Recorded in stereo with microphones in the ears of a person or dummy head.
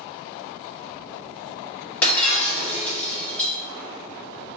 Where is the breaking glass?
10° left (ahead or behind), 1.9 m.